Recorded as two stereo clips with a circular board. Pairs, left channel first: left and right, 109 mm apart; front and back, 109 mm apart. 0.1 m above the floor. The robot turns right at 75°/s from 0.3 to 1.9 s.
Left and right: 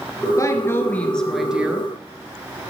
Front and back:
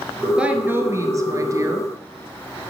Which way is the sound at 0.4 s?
105° left.